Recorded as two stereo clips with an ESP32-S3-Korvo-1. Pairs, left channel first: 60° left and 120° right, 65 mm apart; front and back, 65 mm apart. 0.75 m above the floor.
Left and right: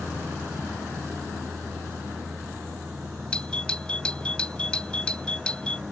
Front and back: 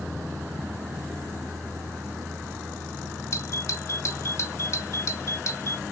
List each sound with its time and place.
0.0 s a vehicle: 170° right; by 5.9 s 155° right
3.3 s a doorbell: 10° right